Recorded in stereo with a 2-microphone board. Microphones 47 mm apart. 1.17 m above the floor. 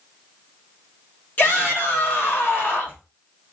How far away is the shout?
About 2.5 m.